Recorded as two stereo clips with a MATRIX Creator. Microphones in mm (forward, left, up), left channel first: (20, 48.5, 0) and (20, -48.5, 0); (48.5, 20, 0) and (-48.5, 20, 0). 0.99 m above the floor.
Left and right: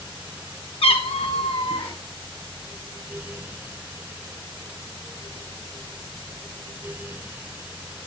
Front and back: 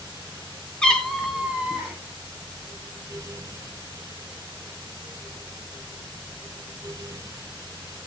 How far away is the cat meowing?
About 2.5 m.